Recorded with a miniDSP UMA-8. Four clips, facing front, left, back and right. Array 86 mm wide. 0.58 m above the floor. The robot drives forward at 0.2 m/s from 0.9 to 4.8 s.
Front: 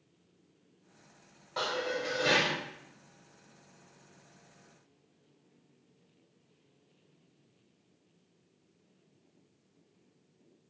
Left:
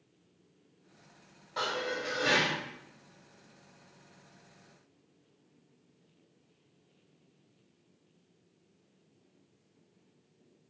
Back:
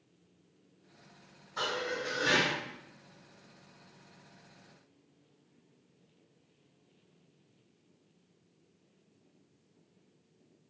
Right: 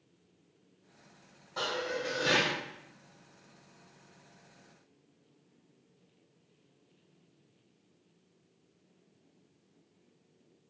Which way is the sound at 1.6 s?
20° left.